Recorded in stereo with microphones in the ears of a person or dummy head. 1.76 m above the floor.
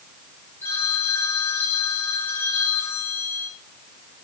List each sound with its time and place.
0.6 s a phone ringing: 10° left (ahead or behind), 4.5 m